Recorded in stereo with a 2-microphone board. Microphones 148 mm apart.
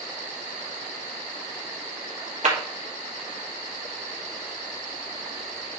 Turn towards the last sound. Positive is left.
turn(degrees=-55)  # may be behind; listen again after turning